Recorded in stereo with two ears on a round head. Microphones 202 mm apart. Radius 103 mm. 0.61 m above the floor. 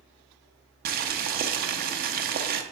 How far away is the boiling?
About 0.7 m.